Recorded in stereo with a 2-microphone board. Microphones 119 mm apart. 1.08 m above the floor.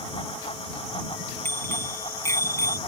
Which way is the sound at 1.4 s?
20° left (ahead or behind).